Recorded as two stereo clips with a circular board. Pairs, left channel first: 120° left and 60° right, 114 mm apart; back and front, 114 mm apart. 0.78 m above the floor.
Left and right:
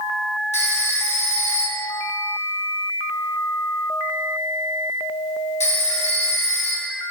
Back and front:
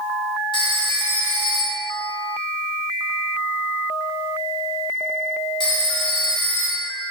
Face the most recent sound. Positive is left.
turn(degrees=135)